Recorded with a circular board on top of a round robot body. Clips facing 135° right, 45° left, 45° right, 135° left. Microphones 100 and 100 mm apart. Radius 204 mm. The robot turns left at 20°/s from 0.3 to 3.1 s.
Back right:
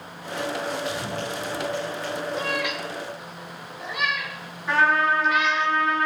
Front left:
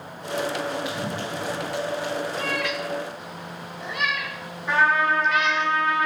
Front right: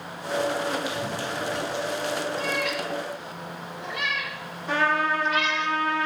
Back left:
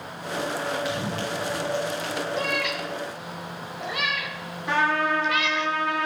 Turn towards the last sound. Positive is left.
turn(degrees=135)